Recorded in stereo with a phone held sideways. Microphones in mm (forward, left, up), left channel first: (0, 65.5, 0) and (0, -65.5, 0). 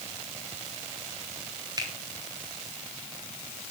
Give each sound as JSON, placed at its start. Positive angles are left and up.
{"t": 1.8, "sound": "a finger snap", "side_deg": -30, "distance_m": 4.5}